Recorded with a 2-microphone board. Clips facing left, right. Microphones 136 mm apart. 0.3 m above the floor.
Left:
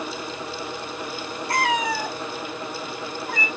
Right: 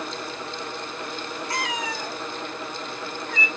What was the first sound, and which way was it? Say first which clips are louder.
A cat meowing: left 8 dB; 60° left (ahead or behind).